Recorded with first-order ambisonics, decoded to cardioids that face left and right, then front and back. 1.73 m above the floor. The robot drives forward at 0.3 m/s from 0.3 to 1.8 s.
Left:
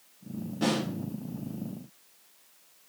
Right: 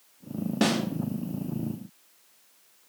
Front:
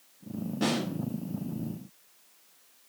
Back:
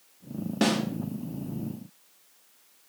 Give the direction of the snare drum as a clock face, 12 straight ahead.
4 o'clock.